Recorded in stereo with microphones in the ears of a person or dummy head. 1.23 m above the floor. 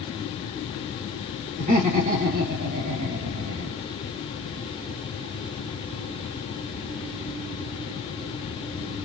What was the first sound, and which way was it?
Laughter, 40° right (ahead or behind).